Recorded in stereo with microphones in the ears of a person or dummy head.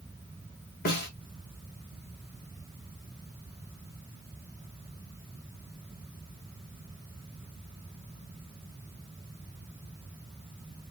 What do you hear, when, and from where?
0.8 s a snare drum: 50° left (ahead or behind), 1.6 m